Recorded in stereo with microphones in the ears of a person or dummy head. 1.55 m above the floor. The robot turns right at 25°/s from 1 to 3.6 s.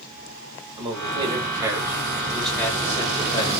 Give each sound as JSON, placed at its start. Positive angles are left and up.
{"t": 0.8, "sound": "a man speaking", "azimuth_deg": -35, "distance_m": 1.3}